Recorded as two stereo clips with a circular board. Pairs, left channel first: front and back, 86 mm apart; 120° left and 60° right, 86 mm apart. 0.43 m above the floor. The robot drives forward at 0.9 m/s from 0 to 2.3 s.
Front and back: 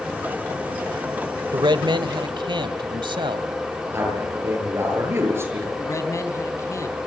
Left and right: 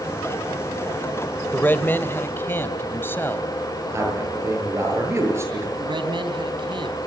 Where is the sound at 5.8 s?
50° right, 4 m.